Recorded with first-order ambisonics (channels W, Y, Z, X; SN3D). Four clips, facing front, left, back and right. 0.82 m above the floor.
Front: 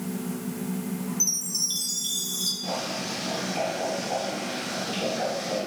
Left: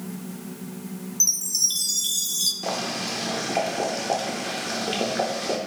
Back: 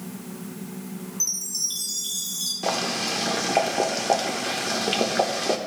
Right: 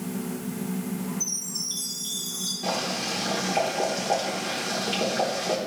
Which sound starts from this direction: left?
A chime, at 1.2 s.